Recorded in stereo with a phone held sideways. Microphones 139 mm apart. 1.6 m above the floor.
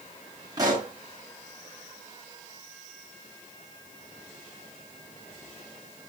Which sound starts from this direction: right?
A pop, at 0.6 s.